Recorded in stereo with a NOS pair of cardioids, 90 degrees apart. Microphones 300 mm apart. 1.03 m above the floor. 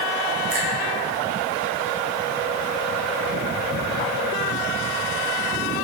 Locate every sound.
0.5 s a finger snap: 45° right, 5.5 m